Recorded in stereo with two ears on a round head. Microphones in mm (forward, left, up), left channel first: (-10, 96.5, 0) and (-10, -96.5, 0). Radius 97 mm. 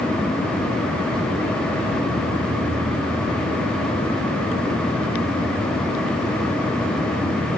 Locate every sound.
Only background noise.